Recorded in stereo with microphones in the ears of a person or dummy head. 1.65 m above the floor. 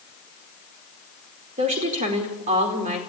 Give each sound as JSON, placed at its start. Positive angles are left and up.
{"t": 1.6, "sound": "a woman speaking", "side_deg": -40, "distance_m": 4.5}